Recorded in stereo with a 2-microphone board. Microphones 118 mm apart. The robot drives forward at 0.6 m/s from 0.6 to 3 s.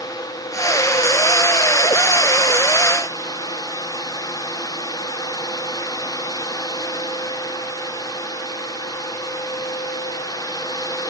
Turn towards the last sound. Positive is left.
No sound to turn to.